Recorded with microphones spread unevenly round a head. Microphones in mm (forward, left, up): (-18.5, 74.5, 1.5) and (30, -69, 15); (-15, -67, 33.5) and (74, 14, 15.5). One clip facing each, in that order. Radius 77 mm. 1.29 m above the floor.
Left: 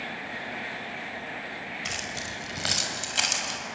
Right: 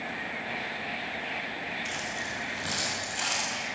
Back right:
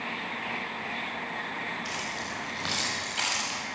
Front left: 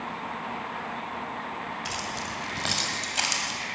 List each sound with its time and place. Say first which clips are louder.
1.9 s keys jangling: right 1 dB, front left 2 dB; 95° left, 5 m; by 3.6 s 100° left, 6.5 m